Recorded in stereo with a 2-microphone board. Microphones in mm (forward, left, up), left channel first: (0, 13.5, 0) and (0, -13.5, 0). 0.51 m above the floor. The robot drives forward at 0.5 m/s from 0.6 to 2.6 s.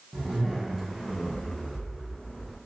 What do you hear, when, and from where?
0.1 s a zipper: 5° right (ahead or behind), 1.2 m; by 2.6 s centre (ahead or behind), 1.8 m